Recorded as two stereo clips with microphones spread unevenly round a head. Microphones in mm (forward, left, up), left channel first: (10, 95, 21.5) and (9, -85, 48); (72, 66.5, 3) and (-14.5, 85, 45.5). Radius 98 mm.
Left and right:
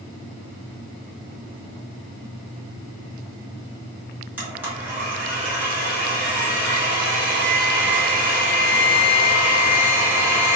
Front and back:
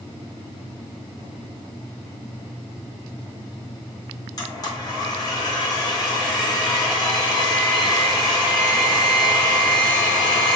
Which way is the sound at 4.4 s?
10° right.